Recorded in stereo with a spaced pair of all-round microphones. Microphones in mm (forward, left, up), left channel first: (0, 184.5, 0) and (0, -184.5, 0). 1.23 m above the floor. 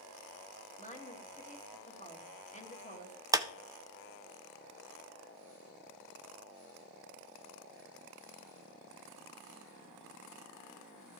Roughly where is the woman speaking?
Centre.